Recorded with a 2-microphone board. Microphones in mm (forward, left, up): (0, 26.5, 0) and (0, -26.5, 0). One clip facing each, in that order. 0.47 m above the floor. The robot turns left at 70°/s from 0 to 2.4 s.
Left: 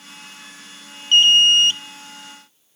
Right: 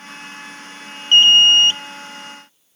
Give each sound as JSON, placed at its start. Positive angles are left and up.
{"t": 1.1, "sound": "an alarm", "azimuth_deg": -65, "distance_m": 0.6}